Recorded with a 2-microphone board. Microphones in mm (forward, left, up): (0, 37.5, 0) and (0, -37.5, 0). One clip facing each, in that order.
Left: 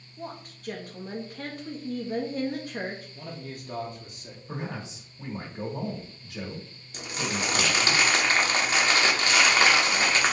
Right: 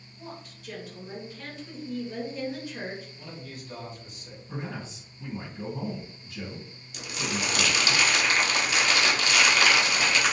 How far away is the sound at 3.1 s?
About 1.0 m.